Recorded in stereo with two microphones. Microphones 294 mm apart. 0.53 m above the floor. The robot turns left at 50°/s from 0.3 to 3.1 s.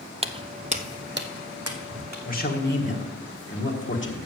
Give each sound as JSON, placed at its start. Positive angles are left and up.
{"t": 0.2, "sound": "footsteps", "side_deg": -20, "distance_m": 0.5}
{"t": 2.2, "sound": "a man speaking", "azimuth_deg": 140, "distance_m": 1.4}